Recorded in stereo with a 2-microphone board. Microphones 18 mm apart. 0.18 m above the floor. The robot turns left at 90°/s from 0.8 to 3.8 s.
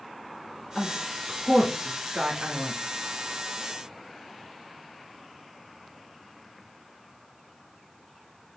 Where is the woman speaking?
55° left (ahead or behind), 2.5 m; by 2.8 s 55° right (ahead or behind), 2.5 m.